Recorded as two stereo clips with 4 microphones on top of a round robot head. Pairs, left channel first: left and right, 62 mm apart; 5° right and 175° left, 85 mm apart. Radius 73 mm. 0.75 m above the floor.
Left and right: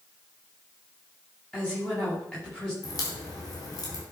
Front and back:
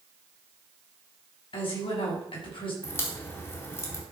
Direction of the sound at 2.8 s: 55° left.